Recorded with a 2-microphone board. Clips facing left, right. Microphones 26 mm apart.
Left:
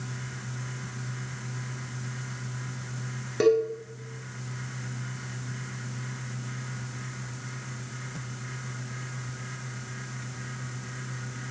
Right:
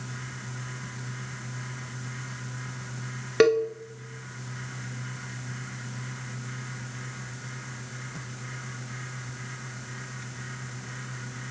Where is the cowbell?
45° right (ahead or behind), 1.1 m.